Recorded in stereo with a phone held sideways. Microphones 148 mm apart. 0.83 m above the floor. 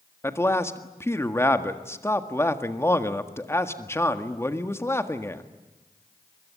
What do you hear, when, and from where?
0.2 s a man speaking: 15° left (ahead or behind), 1.7 m